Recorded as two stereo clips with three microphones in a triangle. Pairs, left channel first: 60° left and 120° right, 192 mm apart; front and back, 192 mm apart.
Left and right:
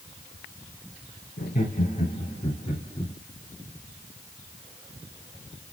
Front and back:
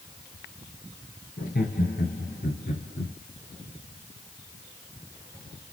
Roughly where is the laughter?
Ahead left.